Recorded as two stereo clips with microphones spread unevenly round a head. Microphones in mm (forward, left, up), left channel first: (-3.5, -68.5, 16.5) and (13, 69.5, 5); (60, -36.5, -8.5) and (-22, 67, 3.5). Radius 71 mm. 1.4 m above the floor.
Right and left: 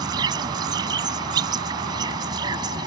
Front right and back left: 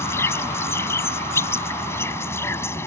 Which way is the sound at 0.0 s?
20° left.